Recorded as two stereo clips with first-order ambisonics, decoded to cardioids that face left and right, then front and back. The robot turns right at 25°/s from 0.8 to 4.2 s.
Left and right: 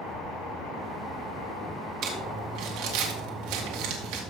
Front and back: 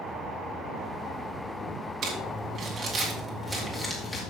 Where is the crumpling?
130° right, 2 m; by 4.2 s 75° right, 2 m.